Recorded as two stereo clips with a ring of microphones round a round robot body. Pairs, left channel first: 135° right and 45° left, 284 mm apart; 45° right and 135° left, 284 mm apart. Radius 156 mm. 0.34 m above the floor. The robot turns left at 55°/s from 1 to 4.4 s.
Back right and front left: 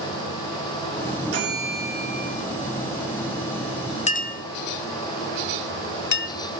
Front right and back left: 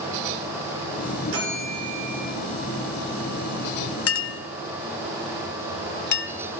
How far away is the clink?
About 0.8 m.